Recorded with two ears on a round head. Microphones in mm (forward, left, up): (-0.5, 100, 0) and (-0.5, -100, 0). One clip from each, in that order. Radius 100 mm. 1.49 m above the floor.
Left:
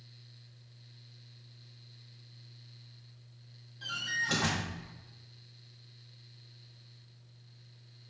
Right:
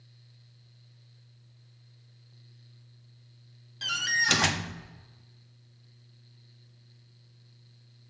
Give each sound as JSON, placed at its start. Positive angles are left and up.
{"t": 3.8, "sound": "a door slam", "side_deg": -60, "distance_m": 0.7}